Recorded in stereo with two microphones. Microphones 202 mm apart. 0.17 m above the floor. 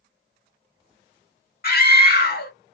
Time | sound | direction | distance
1.6 | a scream | 55° left (ahead or behind) | 2.5 m